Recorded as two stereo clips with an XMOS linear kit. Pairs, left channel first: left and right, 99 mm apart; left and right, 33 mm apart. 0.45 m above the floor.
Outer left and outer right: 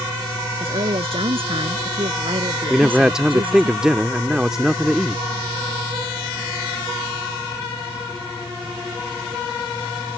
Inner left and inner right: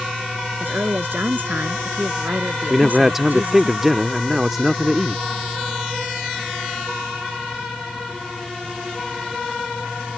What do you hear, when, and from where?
0.6 s a woman speaking: 70° right (ahead or behind); by 3.7 s 60° right (ahead or behind)
2.7 s a man speaking: 5° right (ahead or behind)